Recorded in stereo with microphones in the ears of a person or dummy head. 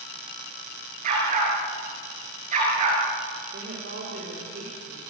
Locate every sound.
1.0 s a dog barking: 45° right (ahead or behind), 8.5 m; by 3.0 s 40° right (ahead or behind), 8.5 m
3.5 s a woman speaking: 60° right (ahead or behind), 5.5 m